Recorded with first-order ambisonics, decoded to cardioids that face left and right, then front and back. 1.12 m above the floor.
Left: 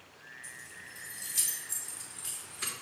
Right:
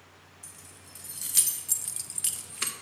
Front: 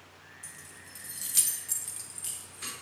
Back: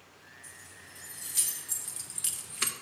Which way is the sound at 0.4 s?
50° right.